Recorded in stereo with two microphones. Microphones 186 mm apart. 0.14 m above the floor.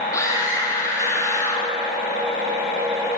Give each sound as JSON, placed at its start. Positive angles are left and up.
{"t": 0.1, "sound": "a scream", "side_deg": 15, "distance_m": 5.5}